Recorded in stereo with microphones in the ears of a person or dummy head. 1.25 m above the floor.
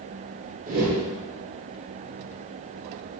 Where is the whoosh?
45° right (ahead or behind), 0.9 m.